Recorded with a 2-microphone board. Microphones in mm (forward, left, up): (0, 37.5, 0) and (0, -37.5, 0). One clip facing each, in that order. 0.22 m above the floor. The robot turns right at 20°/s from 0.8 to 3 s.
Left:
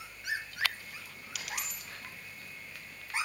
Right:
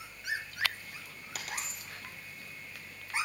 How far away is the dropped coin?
About 1.4 m.